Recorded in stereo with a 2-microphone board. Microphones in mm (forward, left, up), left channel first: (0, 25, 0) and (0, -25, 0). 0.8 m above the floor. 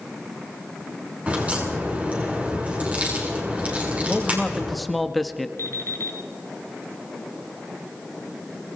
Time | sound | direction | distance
1.3 | a crack | 25° right (ahead or behind) | 8.5 m
4.1 | a man speaking | centre (ahead or behind) | 1.5 m
5.6 | an alarm clock | 60° left (ahead or behind) | 3 m